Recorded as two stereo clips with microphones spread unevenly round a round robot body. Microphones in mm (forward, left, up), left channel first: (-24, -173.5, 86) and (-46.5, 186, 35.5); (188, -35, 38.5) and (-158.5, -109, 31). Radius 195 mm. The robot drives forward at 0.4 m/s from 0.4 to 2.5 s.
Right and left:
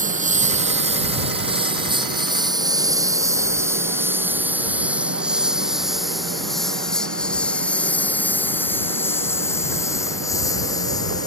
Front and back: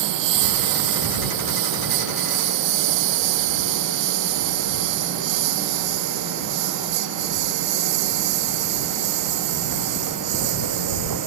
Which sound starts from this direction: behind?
A lawn mower, at 0.0 s.